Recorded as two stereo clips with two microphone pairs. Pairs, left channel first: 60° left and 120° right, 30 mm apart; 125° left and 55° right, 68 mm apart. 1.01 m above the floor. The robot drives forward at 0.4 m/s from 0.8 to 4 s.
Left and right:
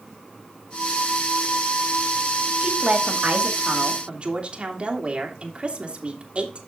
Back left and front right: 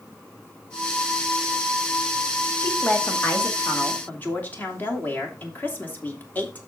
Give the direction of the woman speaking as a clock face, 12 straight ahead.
6 o'clock.